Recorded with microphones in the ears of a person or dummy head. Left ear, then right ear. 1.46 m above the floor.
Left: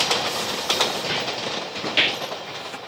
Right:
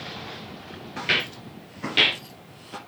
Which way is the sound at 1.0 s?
10° right (ahead or behind).